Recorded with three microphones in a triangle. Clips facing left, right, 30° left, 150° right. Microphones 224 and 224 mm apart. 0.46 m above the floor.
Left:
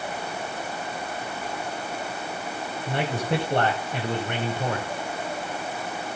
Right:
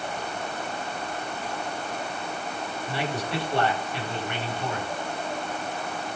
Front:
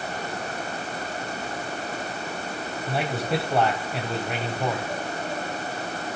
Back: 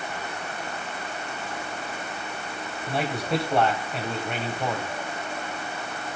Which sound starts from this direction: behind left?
A man speaking, at 2.9 s.